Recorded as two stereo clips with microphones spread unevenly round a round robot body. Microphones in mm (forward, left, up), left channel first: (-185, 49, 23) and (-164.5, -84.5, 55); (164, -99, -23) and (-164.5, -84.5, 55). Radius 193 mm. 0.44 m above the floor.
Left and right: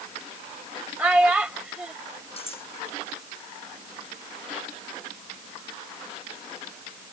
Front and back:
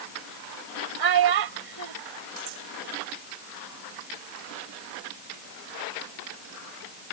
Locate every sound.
1.0 s a child speaking: 165° right
2.4 s cutlery clinking: 145° left